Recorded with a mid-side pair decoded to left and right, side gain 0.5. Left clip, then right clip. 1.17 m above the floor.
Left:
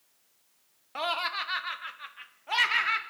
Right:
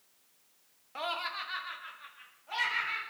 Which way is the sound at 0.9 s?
35° left.